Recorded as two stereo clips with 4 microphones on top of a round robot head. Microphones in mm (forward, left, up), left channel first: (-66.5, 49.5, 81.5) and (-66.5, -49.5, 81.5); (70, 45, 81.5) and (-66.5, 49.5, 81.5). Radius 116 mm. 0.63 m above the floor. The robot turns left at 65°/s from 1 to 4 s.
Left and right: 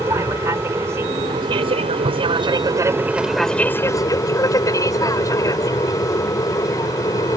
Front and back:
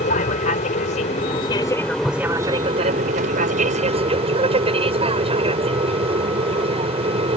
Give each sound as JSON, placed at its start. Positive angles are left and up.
{"t": 0.0, "sound": "an aircraft", "azimuth_deg": -25}